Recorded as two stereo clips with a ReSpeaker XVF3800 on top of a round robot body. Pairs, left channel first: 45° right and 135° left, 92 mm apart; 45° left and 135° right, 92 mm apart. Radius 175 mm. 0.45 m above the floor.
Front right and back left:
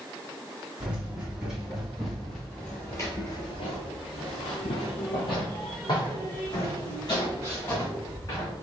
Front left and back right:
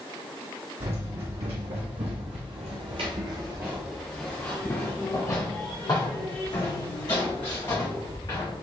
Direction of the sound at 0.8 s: 145° right.